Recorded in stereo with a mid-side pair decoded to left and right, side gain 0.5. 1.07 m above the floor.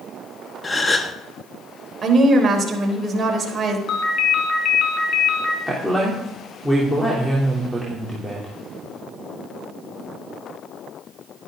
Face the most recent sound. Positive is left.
turn(degrees=5)